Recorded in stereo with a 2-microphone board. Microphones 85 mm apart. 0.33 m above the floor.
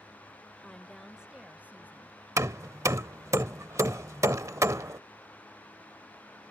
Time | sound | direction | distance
0.6 | a woman speaking | 10° left (ahead or behind) | ?
2.4 | hammering | 40° right (ahead or behind) | ?